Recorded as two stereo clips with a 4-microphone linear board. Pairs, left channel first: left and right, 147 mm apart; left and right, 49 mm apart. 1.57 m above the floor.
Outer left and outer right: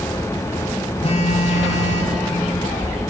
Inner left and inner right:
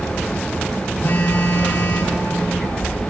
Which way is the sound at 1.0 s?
45° left (ahead or behind).